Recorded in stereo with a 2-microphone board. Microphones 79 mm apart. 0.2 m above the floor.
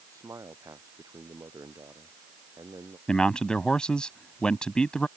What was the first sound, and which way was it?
A man speaking, 40° right (ahead or behind).